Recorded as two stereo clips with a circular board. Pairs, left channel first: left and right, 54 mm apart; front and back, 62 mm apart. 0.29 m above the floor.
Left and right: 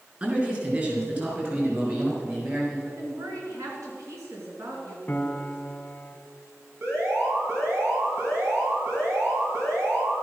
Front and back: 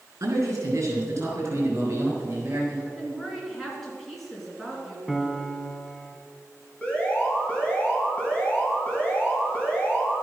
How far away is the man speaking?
About 4.5 m.